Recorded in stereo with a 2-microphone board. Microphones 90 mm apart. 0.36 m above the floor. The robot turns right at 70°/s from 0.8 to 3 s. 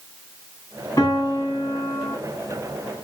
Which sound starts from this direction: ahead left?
A piano, at 1.0 s.